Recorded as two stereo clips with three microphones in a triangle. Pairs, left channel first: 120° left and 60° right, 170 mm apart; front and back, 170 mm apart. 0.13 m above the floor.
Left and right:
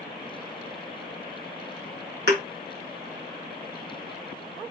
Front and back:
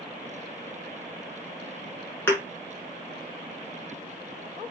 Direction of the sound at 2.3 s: 75° right.